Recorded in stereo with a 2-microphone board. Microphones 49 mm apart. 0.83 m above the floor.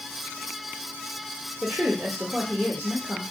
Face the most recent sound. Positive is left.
turn(degrees=-30)  # may be behind; listen again after turning